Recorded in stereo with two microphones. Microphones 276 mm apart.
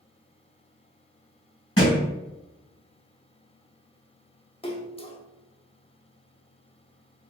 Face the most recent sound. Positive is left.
turn(degrees=20)  # may be behind; listen again after turning